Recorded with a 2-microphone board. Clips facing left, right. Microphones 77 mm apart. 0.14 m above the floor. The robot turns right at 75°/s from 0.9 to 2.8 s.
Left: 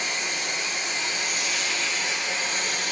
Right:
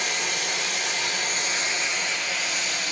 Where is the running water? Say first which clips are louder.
Right 1 dB; 85° right, 1.4 m; by 2.9 s 60° left, 1.4 m.